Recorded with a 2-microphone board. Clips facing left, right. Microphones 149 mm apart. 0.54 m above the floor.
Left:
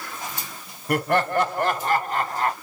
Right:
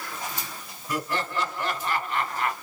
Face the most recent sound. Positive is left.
turn(degrees=35)  # may be behind; listen again after turning